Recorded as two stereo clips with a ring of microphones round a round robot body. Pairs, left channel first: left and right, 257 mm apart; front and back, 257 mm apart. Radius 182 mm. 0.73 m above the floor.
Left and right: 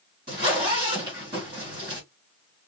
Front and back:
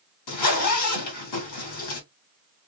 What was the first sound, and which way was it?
A zipper, 10° right.